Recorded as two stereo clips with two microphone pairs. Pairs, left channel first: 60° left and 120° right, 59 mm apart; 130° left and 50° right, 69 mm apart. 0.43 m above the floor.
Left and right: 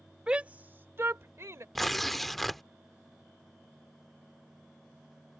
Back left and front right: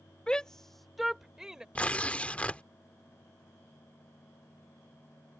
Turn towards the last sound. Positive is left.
turn(degrees=155)